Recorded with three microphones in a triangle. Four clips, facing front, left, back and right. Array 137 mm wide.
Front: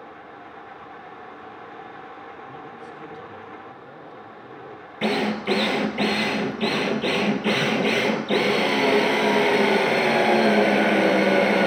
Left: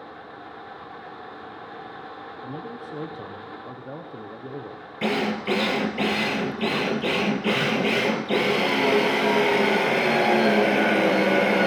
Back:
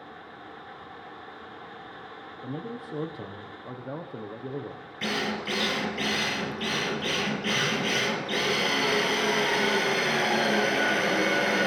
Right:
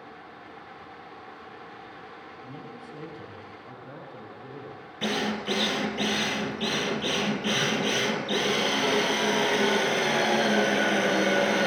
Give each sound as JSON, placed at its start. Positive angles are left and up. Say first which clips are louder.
{"t": 2.4, "sound": "a man speaking", "louder": "left 8 dB, back 2 dB", "azimuth_deg": 145, "distance_m": 4.0}
{"t": 5.0, "sound": "a drill", "louder": "left 4 dB, front 7 dB", "azimuth_deg": 25, "distance_m": 2.5}